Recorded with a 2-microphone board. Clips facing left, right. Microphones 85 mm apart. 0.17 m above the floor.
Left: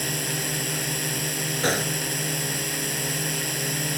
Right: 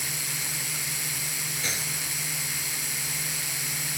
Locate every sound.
0.0 s a drone: 60° left (ahead or behind)
1.6 s a gunshot: 60° left (ahead or behind)